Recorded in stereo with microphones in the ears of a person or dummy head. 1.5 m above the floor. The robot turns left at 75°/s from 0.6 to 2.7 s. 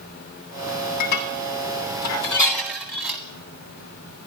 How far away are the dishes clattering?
About 1.0 m.